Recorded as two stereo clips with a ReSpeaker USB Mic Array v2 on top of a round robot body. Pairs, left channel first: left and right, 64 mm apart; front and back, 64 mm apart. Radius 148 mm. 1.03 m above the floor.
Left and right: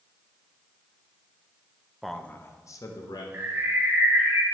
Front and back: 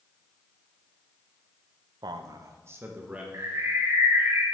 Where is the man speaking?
Straight behind, 0.6 m; by 3.2 s 110° left, 1.1 m.